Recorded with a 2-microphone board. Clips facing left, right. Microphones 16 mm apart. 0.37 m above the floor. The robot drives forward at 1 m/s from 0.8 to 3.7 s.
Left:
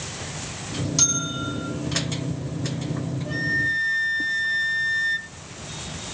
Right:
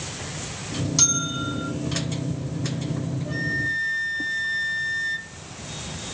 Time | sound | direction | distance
1.0 | a bell | 10° right (ahead or behind) | 3 m
3.2 | a flute | 10° left (ahead or behind) | 2.5 m